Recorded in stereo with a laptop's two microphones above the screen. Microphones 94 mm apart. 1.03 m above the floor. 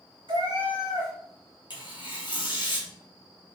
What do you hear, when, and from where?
0.3 s a cat meowing: 60° right (ahead or behind), 1.7 m
1.7 s tearing paper: 55° left (ahead or behind), 1.0 m